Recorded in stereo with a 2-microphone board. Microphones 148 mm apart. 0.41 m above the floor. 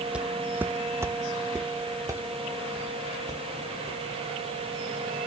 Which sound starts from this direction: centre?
Footsteps, at 0.1 s.